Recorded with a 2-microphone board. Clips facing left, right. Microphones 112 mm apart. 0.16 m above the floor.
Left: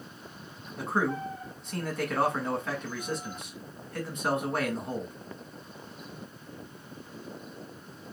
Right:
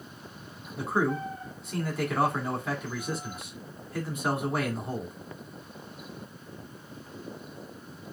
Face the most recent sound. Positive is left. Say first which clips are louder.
# right 2 dB
turn(degrees=-5)  # may be behind; listen again after turning